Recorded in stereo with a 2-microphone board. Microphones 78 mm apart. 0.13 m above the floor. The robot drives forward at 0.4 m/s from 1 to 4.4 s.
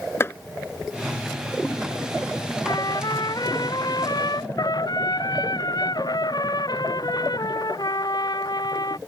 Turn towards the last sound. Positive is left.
turn(degrees=55)  # may be behind; listen again after turning